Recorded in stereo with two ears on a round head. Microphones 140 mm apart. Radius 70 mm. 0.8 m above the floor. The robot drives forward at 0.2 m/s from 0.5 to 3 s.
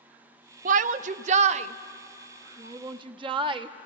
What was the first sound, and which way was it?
A shout, 50° right (ahead or behind).